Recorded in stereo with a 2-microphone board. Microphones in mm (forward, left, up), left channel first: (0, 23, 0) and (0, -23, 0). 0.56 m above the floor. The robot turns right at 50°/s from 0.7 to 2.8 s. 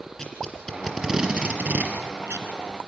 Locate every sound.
0.2 s tape being pulled: 20° left (ahead or behind), 2.5 m; by 2.9 s 80° right, 2.5 m